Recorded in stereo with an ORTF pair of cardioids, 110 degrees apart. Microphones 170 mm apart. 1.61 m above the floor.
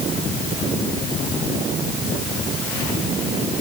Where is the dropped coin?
No dropped coin in this recording.